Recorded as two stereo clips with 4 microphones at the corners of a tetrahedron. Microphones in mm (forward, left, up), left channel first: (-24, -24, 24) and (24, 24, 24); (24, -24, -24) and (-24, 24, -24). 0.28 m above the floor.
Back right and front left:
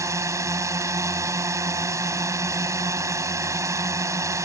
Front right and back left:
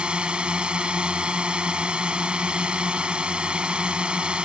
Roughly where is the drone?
Ahead left.